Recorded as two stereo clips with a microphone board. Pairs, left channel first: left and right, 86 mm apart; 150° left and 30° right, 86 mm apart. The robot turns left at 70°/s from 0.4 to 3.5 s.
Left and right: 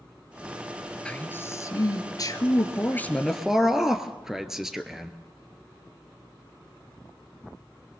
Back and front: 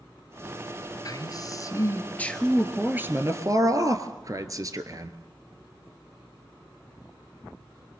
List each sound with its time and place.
1.1 s a man speaking: 165° left, 1.7 m; by 5.2 s 5° right, 1.7 m